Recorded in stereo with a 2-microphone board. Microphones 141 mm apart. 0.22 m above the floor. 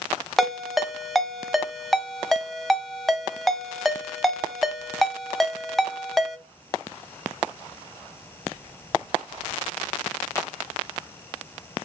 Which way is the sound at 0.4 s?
Centre (ahead or behind).